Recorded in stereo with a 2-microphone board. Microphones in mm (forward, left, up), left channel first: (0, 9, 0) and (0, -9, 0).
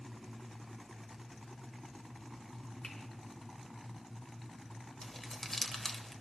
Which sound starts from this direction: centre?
Crumpling, at 5.0 s.